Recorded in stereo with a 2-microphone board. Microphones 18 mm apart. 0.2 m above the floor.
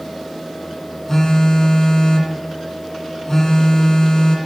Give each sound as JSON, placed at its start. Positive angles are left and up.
{"t": 1.1, "sound": "a phone buzzing", "side_deg": 30, "distance_m": 1.8}